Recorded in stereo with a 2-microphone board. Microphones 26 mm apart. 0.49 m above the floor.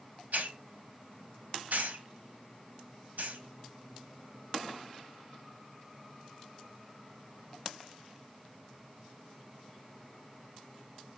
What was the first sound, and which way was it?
A hiss, 75° right (ahead or behind).